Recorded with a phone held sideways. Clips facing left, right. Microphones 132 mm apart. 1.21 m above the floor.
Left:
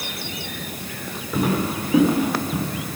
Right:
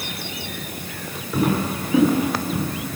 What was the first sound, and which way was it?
Footsteps, 5° left (ahead or behind).